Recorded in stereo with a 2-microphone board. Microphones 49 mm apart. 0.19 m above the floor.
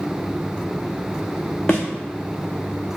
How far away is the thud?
About 0.7 m.